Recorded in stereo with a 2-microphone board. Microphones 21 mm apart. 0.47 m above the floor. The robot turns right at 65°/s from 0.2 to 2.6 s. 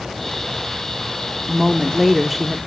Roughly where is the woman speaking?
Centre.